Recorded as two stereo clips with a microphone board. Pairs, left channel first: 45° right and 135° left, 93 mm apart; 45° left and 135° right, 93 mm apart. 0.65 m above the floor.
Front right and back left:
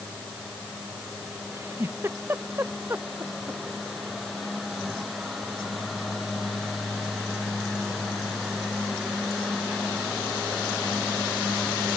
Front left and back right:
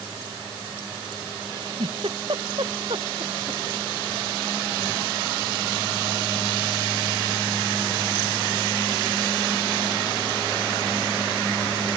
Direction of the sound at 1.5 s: 160° right.